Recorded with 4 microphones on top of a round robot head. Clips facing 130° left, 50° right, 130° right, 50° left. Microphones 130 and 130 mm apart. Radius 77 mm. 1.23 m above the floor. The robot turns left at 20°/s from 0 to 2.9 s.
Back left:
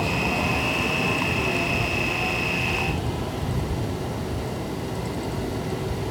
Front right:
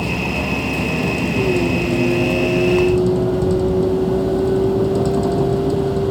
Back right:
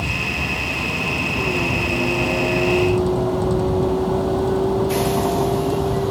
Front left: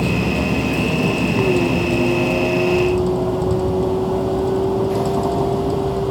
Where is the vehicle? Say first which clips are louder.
Front right 3 dB, front left 8 dB; 25° left; by 6.1 s 35° right.